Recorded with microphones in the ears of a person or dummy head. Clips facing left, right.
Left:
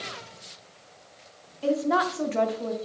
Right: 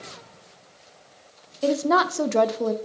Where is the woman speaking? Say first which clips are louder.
Right 3 dB; 60° right (ahead or behind), 0.6 m.